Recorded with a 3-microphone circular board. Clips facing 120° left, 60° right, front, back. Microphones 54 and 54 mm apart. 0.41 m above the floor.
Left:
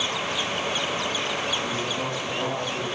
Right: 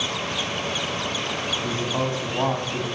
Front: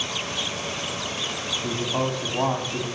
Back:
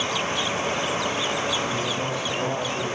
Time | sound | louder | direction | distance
1.6 | a man speaking | right 2 dB, even | 20° right | 3 m